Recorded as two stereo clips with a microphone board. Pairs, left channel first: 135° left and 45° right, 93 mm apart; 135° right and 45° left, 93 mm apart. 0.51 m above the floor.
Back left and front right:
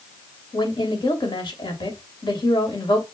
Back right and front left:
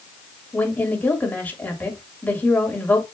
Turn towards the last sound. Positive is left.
turn(degrees=155)